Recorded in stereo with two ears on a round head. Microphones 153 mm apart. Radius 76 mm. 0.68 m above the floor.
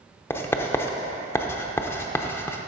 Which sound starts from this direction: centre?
Writing, at 0.3 s.